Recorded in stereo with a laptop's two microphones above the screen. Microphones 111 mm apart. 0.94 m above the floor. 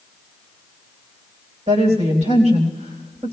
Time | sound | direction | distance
1.7 | a woman speaking | 80° right | 4 m